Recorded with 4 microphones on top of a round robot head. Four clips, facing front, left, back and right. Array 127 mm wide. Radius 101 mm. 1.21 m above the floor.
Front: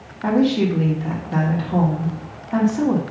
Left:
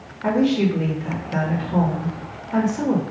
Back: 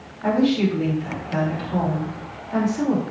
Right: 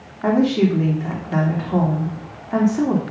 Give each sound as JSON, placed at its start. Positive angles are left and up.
{"t": 0.2, "sound": "a woman speaking", "azimuth_deg": -65, "distance_m": 3.0}